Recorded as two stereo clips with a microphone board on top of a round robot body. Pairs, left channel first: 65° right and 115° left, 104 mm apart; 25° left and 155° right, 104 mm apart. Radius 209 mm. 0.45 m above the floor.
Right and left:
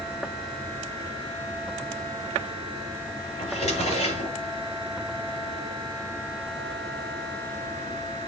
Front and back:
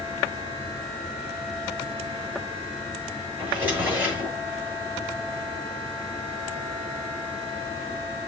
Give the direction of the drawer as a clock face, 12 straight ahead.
3 o'clock.